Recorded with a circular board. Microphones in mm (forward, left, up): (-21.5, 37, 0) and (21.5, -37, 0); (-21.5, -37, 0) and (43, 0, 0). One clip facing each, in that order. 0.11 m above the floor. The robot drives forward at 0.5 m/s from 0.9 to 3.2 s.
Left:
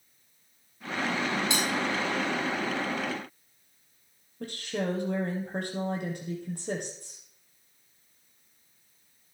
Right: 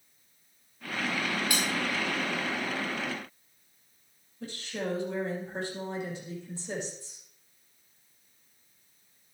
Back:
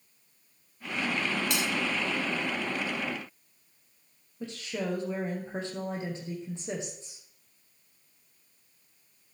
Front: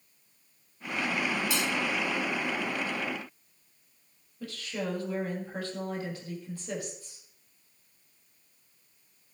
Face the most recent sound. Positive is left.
turn(degrees=145)